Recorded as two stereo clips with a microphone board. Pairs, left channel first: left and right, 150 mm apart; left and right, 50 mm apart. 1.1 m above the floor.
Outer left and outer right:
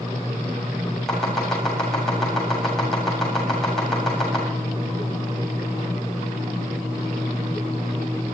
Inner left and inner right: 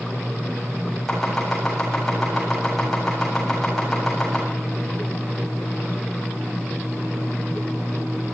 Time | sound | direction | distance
1.1 | chopping | 5° left (ahead or behind) | 8 m